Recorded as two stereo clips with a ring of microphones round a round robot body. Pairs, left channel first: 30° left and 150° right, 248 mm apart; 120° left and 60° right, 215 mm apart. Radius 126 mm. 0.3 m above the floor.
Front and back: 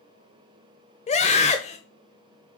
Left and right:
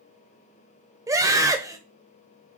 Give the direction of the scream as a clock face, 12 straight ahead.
12 o'clock.